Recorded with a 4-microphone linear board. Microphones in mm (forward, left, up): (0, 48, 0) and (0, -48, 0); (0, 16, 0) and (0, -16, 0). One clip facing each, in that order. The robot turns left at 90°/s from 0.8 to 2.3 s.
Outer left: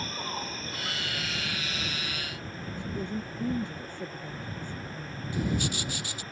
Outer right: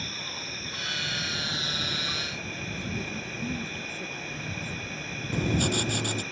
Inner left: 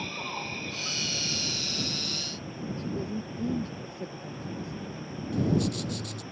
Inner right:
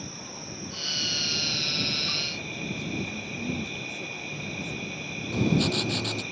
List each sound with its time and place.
0.0 s an insect: 40° left; by 6.3 s 95° right
2.8 s a woman speaking: 25° left (ahead or behind)
5.3 s writing: 50° right (ahead or behind)